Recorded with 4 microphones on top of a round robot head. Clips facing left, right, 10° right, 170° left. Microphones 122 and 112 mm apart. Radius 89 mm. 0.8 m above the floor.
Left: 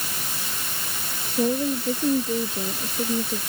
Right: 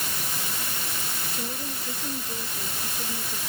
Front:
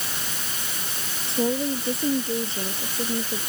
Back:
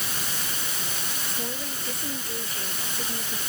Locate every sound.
1.3 s a woman speaking: 50° left; by 3.4 s 60° left